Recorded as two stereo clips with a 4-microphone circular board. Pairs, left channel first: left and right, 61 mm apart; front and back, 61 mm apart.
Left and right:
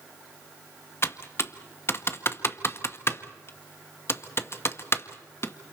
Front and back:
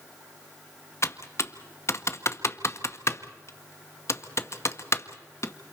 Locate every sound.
1.0 s typing on a keyboard: 40° left, 0.9 m